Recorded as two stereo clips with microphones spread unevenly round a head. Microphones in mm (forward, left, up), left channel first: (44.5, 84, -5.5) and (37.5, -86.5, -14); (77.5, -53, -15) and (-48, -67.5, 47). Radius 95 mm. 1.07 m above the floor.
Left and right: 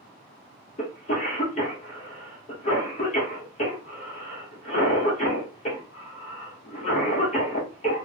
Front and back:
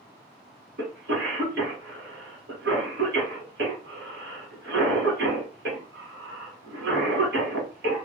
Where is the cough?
145° left, 1.1 m.